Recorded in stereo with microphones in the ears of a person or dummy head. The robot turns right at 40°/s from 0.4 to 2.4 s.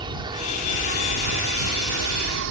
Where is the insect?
155° right; by 2.5 s 75° right.